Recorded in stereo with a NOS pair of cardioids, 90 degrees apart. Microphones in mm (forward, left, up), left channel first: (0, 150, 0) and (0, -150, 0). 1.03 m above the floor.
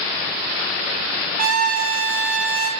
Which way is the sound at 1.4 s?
30° right.